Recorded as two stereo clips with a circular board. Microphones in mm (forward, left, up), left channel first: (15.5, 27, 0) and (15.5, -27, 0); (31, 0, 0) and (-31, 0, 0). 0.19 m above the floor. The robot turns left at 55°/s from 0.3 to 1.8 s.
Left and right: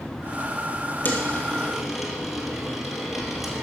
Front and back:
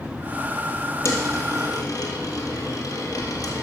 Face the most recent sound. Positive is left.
turn(degrees=-5)